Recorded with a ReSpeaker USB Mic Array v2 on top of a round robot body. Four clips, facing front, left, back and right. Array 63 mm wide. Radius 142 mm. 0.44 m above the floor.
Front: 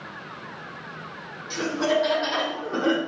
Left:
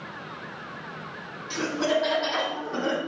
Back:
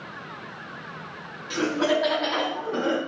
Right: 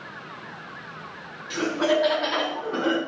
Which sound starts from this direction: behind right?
Laughter, at 1.5 s.